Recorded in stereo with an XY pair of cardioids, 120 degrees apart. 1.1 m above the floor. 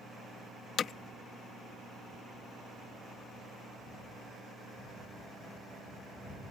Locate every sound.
0.8 s hammering: 50° left